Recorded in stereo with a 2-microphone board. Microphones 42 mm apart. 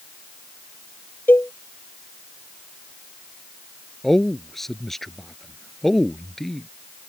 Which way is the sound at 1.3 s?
55° left (ahead or behind).